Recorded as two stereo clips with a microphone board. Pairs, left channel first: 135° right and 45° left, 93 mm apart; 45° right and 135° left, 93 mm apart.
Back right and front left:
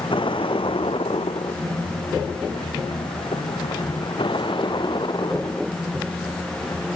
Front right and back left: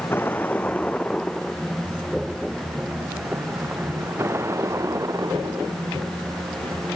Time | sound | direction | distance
0.0 | a vehicle | 110° right | ?